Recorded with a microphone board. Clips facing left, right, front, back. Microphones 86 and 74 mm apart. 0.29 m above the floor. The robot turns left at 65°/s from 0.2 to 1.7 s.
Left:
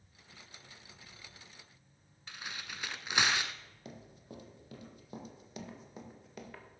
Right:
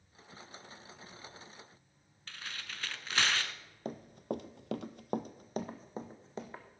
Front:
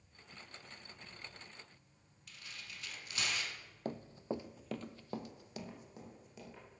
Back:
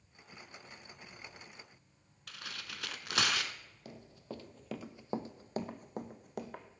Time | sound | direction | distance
2.3 | tearing paper | 165° left | 0.6 m
3.9 | running footsteps | 45° right | 0.7 m